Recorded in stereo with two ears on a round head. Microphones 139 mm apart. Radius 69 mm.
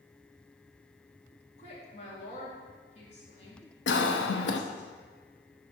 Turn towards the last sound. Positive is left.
turn(degrees=85)